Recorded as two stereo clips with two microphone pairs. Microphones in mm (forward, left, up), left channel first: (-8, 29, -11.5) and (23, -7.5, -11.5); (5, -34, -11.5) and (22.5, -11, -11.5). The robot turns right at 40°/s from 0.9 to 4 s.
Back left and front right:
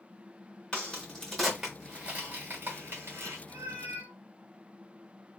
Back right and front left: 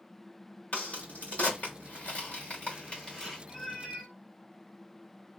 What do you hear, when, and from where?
0.7 s a crack: 160° right, 1.4 m; by 3.4 s 60° right, 1.4 m
3.5 s a cat meowing: 70° right, 1.3 m; by 4.1 s 50° right, 1.3 m